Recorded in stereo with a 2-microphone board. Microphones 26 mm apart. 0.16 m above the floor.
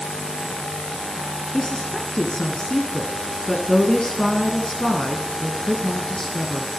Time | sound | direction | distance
1.5 | a woman speaking | 30° left (ahead or behind) | 1.8 m